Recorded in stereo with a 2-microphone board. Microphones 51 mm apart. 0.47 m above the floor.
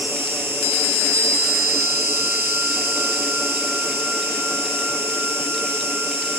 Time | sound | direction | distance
0.0 | an insect | 50° right (ahead or behind) | 1.5 m